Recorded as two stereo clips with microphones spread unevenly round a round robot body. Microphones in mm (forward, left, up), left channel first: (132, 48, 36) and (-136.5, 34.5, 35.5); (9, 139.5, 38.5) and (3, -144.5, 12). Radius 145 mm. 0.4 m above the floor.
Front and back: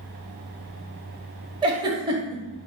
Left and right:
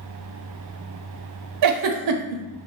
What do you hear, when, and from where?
1.6 s a giggle: 105° right, 0.5 m